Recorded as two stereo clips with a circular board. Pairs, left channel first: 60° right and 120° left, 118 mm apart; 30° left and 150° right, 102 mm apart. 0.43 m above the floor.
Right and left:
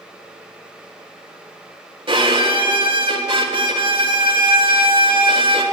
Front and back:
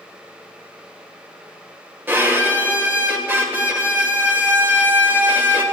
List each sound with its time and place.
2.1 s a violin: 145° left, 1.5 m